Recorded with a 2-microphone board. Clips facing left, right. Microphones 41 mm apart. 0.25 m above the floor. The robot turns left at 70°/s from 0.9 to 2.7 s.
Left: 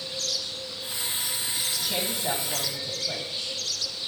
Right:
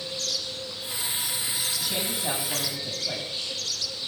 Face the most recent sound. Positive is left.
turn(degrees=-45)